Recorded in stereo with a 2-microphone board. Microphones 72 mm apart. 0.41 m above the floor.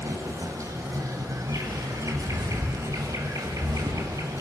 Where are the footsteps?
60° right (ahead or behind), 7 m; by 4.3 s 75° right (ahead or behind), 4 m.